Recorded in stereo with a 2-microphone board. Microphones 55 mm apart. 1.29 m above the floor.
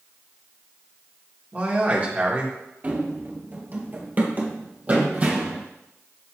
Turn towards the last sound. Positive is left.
turn(degrees=-25)  # may be behind; listen again after turning